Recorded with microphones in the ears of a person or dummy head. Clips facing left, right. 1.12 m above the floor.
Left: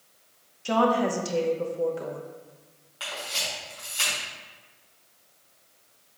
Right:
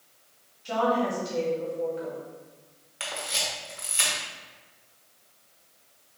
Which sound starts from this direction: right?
A camera shutter, at 3.0 s.